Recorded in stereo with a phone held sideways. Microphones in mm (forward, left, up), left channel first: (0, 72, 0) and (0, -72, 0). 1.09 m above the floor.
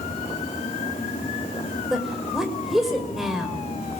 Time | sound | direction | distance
0.0 | a fan | 45° left (ahead or behind) | 4.5 m
1.9 | a woman speaking | 5° right (ahead or behind) | 5.5 m